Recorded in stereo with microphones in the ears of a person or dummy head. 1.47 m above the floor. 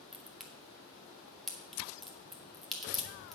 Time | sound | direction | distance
0.1 | a crack | 5° left (ahead or behind) | 1.9 m